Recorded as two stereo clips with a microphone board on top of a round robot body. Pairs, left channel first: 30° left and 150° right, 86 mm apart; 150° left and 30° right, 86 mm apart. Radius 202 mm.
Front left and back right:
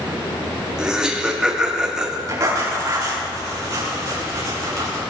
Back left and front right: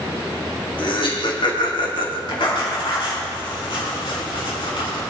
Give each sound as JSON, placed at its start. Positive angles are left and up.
{"t": 0.8, "sound": "laughter", "azimuth_deg": 130, "distance_m": 3.0}
{"t": 2.3, "sound": "writing", "azimuth_deg": 160, "distance_m": 7.0}